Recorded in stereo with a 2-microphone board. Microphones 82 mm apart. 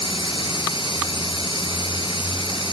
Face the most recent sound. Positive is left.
turn(degrees=85)